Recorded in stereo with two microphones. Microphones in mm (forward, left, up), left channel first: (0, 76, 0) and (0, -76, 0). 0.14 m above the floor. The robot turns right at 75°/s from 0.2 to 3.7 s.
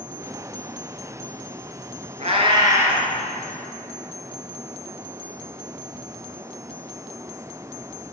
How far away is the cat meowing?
About 1.2 m.